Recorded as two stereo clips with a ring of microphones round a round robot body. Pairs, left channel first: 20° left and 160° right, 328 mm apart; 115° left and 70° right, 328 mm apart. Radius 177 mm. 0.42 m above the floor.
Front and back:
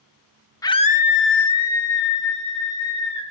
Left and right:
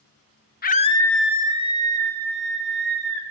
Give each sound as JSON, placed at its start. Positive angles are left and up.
{"t": 0.6, "sound": "a scream", "azimuth_deg": 90, "distance_m": 0.8}